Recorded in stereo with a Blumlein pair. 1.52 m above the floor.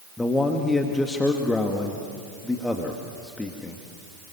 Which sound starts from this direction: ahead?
A man speaking, at 0.2 s.